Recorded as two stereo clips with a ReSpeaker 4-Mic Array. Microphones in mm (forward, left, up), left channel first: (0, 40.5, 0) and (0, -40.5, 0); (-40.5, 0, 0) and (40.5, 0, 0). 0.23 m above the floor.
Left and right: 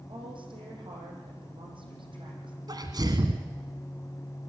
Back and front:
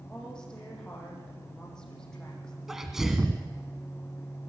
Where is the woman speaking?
100° right, 8.5 m.